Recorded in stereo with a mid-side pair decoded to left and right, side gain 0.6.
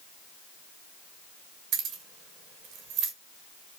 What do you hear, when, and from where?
1.7 s keys jangling: 70° right, 1.3 m